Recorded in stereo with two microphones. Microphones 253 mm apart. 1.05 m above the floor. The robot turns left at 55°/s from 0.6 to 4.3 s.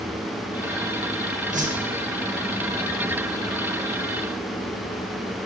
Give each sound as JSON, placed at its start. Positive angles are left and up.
{"t": 1.5, "sound": "a whoosh", "side_deg": -30, "distance_m": 0.6}